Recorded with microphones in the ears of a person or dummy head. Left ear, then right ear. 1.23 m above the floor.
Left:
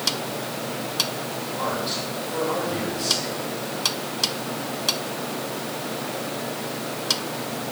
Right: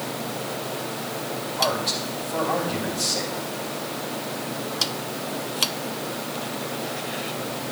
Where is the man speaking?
20° right (ahead or behind), 6 m.